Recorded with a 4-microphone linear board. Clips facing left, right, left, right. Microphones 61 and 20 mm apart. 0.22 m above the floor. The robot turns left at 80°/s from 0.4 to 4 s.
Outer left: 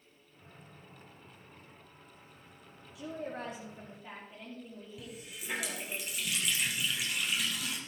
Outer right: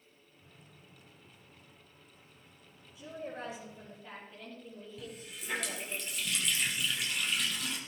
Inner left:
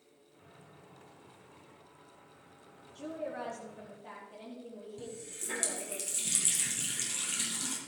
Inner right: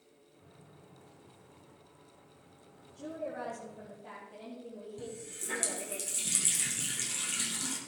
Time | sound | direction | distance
3.0 | a woman speaking | 100° left | 7 m
5.0 | a running tap | 5° left (ahead or behind) | 3.5 m